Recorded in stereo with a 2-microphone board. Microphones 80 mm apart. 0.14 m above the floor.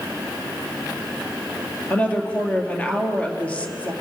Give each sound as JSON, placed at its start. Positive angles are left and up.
{"t": 1.9, "sound": "a woman speaking", "side_deg": 15, "distance_m": 2.5}